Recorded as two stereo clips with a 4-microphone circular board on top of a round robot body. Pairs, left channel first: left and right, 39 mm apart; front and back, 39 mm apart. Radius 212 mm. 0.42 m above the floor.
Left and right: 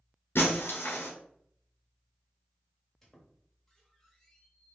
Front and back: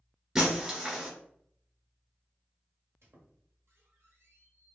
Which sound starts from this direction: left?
Breaking glass, at 0.3 s.